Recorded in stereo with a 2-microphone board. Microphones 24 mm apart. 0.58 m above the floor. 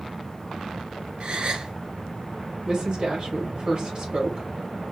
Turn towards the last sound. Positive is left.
turn(degrees=-45)  # may be behind; listen again after turning